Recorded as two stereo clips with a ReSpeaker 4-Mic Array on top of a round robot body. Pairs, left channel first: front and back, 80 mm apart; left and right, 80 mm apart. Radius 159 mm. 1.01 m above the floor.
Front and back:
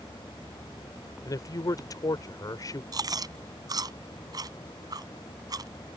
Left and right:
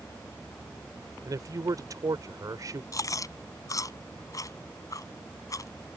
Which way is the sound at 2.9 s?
135° left.